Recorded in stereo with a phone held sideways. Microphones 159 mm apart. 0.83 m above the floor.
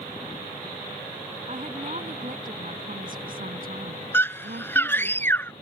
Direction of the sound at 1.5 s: 45° right (ahead or behind).